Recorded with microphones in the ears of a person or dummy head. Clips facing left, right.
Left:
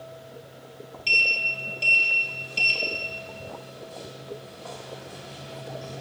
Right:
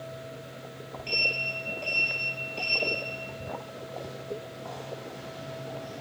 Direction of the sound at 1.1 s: 45° left (ahead or behind).